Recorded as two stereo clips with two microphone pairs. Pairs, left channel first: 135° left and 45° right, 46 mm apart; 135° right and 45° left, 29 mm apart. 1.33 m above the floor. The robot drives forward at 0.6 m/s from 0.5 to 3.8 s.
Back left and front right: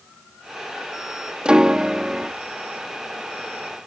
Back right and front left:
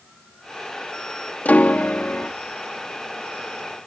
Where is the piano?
115° right; by 2.3 s 125° right.